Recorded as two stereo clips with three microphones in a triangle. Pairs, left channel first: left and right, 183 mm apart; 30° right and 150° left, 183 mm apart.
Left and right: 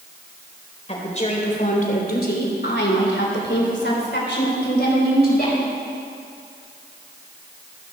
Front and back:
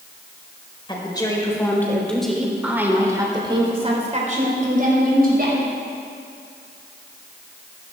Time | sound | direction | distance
0.9 | a woman speaking | 35° left | 3.5 m